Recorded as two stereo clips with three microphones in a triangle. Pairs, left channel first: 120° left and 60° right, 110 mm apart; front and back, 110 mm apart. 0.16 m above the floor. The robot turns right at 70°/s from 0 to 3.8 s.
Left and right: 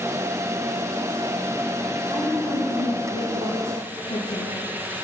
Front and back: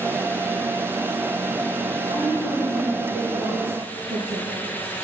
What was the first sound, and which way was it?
A woman speaking, 30° left.